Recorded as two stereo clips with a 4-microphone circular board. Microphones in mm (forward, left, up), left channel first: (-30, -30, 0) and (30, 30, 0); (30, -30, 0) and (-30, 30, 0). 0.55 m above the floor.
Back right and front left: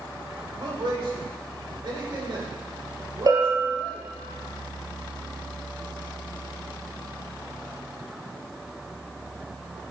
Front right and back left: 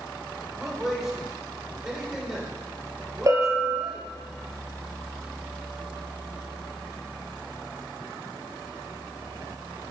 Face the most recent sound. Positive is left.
turn(degrees=85)